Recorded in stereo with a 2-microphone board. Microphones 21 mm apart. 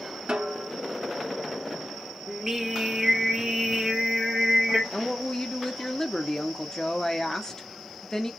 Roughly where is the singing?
Centre.